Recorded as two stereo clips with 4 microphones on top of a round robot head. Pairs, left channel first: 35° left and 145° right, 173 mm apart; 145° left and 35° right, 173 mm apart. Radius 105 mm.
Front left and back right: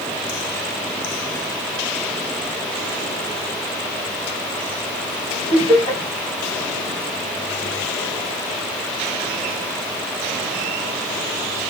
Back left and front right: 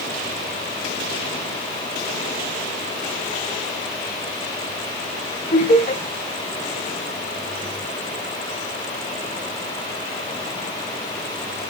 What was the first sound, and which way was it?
Laughter, 100° left.